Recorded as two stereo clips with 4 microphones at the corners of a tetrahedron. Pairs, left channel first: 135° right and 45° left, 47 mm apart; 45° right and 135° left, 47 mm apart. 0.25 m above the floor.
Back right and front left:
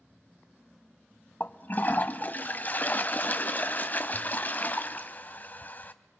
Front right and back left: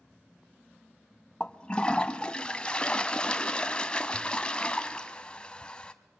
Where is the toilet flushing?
105° right, 0.8 m.